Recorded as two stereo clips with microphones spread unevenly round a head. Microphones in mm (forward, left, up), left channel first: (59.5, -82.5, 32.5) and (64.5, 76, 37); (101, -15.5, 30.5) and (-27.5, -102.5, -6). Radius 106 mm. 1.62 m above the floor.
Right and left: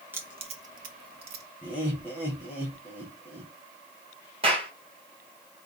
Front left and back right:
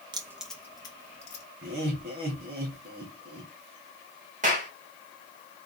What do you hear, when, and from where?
0.1 s keys jangling: 150° left, 0.8 m; by 1.4 s 80° left, 1.7 m
1.6 s laughter: 170° left, 1.8 m
4.4 s a clap: 155° left, 1.7 m